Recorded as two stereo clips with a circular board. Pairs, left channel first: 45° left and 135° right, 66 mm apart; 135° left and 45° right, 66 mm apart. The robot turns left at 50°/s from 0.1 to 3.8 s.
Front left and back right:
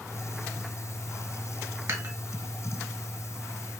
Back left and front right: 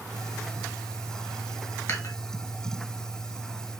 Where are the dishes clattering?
175° right, 1.6 m; by 2.1 s 170° left, 1.6 m.